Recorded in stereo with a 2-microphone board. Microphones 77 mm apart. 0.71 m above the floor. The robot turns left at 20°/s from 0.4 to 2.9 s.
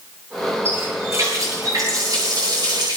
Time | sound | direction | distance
0.7 | a running tap | 35° right | 9.5 m